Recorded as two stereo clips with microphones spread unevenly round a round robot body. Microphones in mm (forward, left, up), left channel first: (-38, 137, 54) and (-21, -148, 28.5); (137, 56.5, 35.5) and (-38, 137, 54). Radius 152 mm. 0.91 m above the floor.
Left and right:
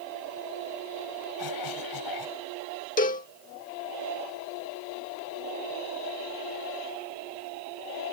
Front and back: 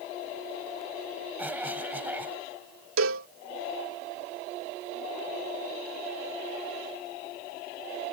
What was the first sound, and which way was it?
A cough, 75° left.